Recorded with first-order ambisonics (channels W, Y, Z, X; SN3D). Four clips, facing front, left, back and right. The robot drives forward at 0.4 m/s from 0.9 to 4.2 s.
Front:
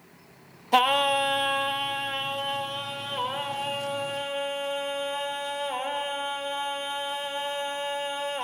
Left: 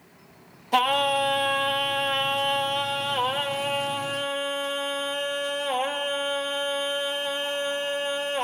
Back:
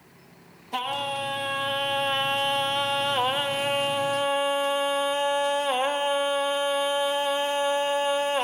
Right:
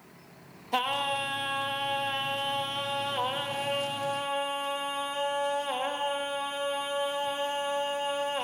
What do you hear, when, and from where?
0.7 s singing: 30° left, 0.6 m; by 8.4 s 170° left, 1.1 m